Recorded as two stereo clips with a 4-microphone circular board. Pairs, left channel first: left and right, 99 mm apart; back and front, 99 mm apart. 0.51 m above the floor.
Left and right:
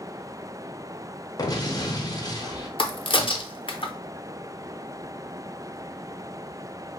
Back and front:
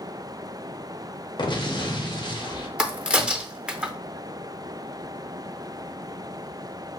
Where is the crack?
80° left, 0.6 m.